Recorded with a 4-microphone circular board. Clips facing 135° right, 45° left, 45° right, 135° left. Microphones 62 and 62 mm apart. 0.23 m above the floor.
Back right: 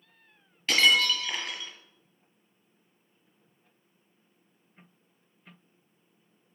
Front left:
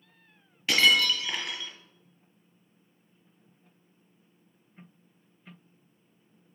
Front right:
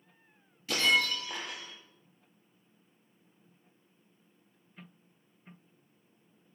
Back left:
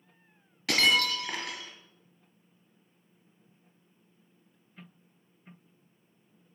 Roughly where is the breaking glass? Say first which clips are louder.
Even, back left 2 dB; behind left.